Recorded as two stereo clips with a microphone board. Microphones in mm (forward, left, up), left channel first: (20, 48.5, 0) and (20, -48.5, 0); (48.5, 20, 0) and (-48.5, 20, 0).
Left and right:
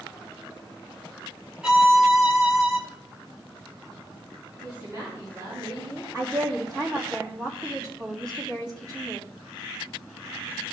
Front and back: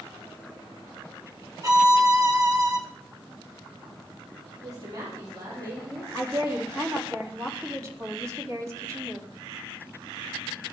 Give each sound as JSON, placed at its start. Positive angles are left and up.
{"t": 1.6, "sound": "a violin", "azimuth_deg": -165, "distance_m": 1.5}
{"t": 4.6, "sound": "a woman speaking", "azimuth_deg": -140, "distance_m": 4.0}
{"t": 6.1, "sound": "a woman speaking", "azimuth_deg": -130, "distance_m": 3.0}